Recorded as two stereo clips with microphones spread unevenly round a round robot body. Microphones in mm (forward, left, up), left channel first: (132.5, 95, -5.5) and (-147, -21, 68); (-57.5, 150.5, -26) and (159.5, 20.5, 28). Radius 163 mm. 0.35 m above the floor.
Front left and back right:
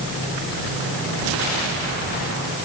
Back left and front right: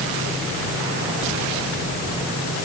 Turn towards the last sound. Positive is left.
No sound to turn to.